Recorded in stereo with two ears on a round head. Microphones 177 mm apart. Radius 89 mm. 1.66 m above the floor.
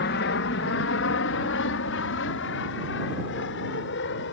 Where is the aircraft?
60° left (ahead or behind); by 4.3 s 65° left (ahead or behind).